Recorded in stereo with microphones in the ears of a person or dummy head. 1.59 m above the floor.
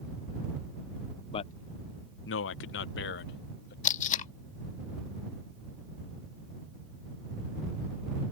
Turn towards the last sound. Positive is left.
turn(degrees=40)  # may be behind; listen again after turning